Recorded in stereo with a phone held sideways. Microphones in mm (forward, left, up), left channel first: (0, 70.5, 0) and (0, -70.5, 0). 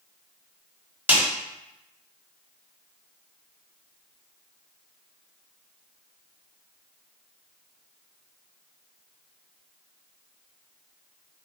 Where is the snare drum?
15° right (ahead or behind), 1.2 m.